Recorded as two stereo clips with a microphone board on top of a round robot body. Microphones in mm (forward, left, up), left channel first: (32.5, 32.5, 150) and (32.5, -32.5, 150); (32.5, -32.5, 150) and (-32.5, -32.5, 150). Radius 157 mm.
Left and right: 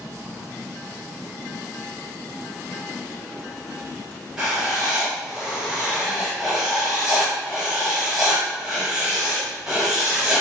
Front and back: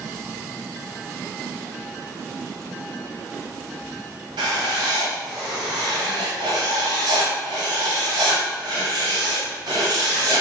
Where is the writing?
175° right, 0.6 m.